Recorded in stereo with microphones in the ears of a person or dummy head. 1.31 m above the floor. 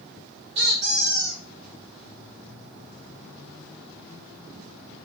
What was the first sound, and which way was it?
A squeak, 35° right (ahead or behind).